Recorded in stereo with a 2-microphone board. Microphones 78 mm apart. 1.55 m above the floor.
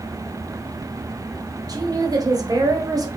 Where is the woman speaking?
55° right (ahead or behind), 0.8 m.